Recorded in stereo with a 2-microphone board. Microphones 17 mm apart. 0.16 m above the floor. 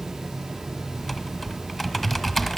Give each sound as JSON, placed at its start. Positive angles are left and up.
{"t": 1.0, "sound": "typing on a keyboard", "side_deg": 10, "distance_m": 1.5}